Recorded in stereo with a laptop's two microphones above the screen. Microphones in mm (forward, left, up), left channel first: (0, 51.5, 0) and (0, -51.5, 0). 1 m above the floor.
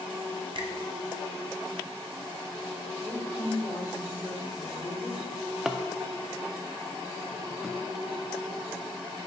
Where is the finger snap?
50° right (ahead or behind), 1.3 m.